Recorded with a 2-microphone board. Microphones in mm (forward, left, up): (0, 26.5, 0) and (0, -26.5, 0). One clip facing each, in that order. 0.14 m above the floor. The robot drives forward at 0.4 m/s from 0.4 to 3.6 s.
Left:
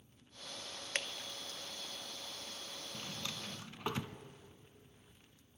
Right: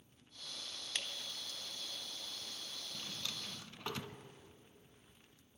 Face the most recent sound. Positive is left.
turn(degrees=20)  # may be behind; listen again after turning